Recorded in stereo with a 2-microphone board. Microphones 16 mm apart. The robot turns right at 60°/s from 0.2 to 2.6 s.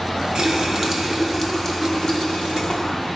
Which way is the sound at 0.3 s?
65° right.